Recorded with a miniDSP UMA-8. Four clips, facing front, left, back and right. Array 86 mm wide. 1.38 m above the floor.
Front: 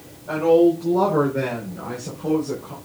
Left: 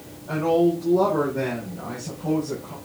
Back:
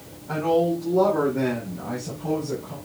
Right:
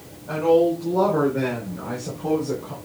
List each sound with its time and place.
0.3 s a woman speaking: 15° right, 4.5 m; by 2.8 s 55° right, 3.5 m